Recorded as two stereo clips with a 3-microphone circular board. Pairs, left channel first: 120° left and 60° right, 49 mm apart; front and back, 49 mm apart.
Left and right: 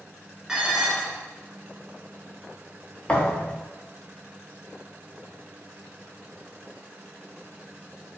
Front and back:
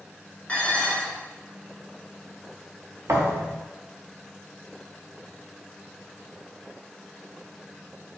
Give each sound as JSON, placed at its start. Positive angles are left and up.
{"t": 0.5, "sound": "dishes clattering", "azimuth_deg": 5, "distance_m": 0.9}
{"t": 3.1, "sound": "a thud", "azimuth_deg": -175, "distance_m": 0.5}